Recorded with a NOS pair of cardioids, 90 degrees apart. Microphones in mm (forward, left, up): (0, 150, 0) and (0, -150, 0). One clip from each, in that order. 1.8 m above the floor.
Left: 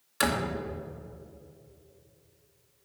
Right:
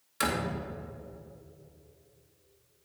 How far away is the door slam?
About 2 m.